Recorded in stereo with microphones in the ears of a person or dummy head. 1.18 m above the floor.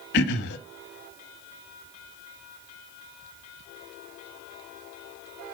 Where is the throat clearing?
55° left (ahead or behind), 1.4 m.